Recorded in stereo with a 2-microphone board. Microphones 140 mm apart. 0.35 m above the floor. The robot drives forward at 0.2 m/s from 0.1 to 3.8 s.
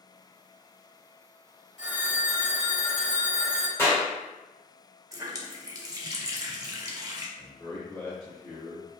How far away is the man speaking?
About 0.8 m.